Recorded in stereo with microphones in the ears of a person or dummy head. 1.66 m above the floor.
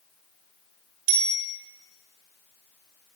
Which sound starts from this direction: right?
A bicycle bell, at 1.1 s.